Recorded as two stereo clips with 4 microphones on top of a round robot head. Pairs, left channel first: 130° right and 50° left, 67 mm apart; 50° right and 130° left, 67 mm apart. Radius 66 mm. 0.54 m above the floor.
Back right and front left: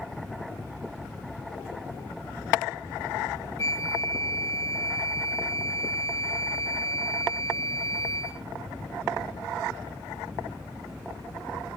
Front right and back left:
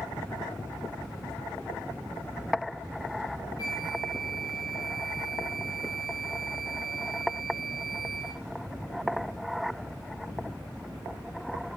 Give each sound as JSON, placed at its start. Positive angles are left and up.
{"t": 3.6, "sound": "a flute", "azimuth_deg": -85, "distance_m": 0.7}